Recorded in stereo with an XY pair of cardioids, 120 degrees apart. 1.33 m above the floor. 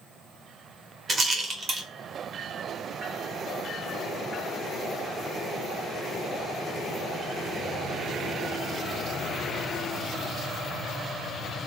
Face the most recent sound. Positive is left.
turn(degrees=-30)